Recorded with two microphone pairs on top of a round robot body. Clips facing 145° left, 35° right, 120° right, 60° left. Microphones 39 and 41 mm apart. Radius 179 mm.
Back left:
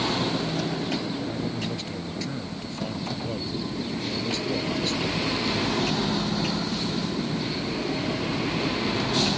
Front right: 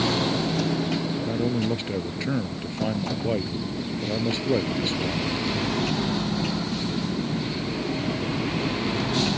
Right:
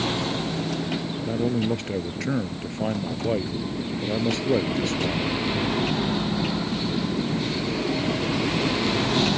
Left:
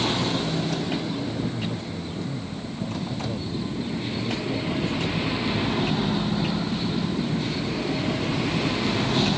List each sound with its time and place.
1.2 s a man speaking: 95° right